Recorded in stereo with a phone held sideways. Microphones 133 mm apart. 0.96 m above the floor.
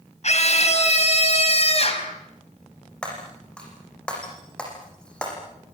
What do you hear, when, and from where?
0.2 s a scream: 55° left (ahead or behind), 5.5 m; by 2.1 s 45° left (ahead or behind), 5.5 m
3.0 s breaking glass: 5° left (ahead or behind), 7.5 m